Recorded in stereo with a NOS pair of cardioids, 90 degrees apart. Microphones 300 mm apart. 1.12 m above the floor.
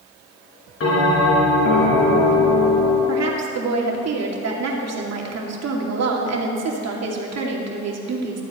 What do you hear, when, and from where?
0.8 s a bell: 50° left, 4.5 m
3.1 s a woman speaking: 60° right, 2.5 m